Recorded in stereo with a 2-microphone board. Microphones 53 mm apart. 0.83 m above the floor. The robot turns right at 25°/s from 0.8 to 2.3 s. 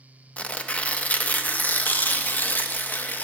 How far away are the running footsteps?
No running footsteps in this recording.